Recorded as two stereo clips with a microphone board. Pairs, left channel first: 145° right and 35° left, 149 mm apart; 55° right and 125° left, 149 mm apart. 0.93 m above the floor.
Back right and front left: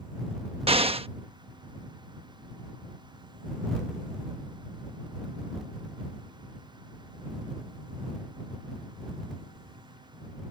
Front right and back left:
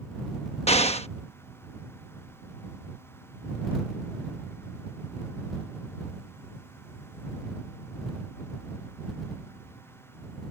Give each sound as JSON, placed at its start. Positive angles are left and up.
{"t": 0.7, "sound": "an explosion", "azimuth_deg": -15}